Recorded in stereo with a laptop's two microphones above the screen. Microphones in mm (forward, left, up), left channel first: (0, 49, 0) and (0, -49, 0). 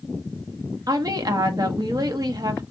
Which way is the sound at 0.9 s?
40° right (ahead or behind).